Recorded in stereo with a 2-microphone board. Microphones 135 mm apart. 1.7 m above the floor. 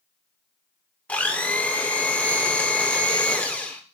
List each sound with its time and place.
1.1 s a blender: 10° left (ahead or behind), 0.8 m